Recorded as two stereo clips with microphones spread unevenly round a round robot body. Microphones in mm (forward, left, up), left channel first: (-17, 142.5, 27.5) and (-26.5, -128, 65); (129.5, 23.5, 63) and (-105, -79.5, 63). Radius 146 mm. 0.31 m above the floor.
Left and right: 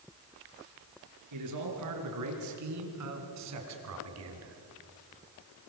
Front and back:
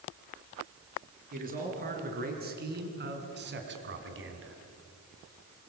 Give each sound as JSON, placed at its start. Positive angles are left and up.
{"t": 1.3, "sound": "a man speaking", "azimuth_deg": -100, "distance_m": 6.0}